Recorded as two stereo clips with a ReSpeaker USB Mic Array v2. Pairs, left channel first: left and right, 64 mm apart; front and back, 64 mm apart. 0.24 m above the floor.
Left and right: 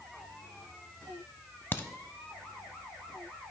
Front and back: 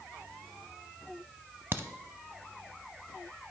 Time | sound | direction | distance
1.7 | a crack | 140° left | 0.7 m